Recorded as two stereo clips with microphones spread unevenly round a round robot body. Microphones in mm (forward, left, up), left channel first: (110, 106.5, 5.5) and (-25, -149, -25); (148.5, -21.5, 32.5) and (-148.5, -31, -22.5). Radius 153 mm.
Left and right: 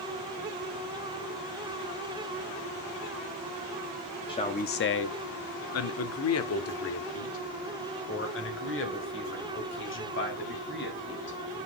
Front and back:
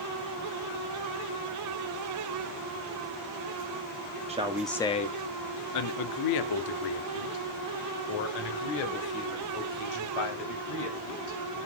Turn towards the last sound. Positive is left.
turn(degrees=10)